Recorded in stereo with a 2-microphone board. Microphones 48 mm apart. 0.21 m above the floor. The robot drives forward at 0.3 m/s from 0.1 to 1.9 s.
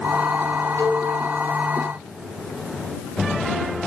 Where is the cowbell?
55° left (ahead or behind), 2.5 m.